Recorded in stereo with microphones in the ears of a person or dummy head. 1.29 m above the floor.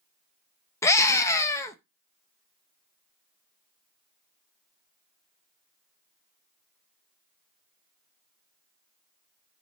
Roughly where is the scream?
Centre.